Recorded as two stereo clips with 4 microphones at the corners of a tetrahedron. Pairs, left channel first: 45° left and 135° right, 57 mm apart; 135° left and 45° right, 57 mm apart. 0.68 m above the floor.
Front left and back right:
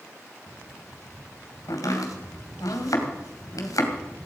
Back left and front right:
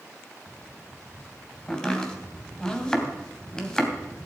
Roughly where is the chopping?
Ahead left.